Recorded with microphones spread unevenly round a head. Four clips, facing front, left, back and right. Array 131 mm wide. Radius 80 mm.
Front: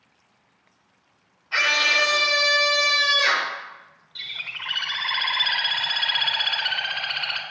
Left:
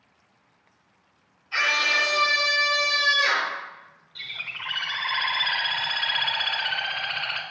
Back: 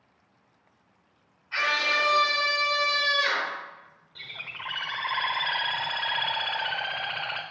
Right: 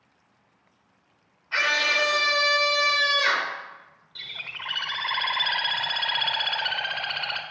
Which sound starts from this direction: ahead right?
A scream, at 1.5 s.